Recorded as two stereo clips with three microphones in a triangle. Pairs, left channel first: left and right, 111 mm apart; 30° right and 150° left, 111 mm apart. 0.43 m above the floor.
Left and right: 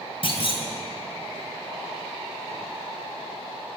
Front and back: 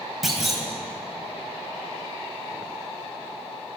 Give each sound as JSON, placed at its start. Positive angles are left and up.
{"t": 0.2, "sound": "a clunk", "azimuth_deg": 60, "distance_m": 2.5}